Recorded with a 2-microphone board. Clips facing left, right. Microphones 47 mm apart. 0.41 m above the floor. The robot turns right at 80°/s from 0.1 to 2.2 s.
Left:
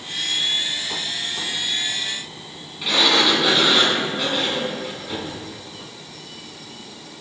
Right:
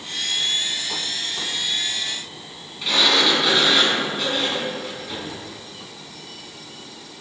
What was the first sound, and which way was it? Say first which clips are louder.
A sliding door: left 1 dB; 5° left (ahead or behind).